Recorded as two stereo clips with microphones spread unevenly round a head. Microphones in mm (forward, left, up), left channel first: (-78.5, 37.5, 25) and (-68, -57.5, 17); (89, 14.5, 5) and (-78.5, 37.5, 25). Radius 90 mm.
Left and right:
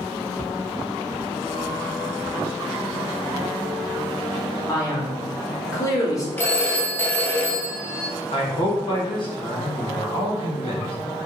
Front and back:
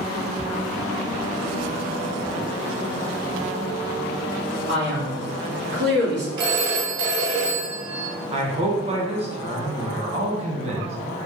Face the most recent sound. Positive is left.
turn(degrees=120)